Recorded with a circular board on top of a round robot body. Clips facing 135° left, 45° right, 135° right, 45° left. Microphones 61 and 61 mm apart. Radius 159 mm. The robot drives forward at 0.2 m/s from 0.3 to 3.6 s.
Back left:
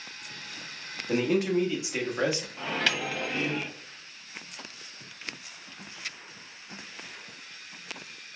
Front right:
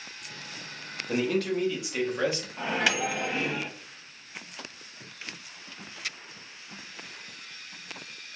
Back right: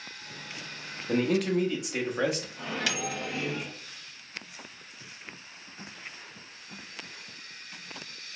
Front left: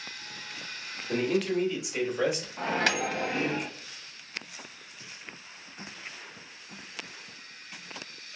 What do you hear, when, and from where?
1.1 s a man speaking: 155° right, 1.3 m; by 2.5 s 160° right, 1.5 m
2.6 s a microwave: 25° left, 0.9 m; by 3.7 s 35° left, 0.7 m